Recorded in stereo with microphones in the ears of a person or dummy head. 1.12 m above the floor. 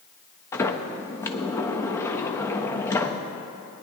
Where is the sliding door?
15° left (ahead or behind), 0.5 m.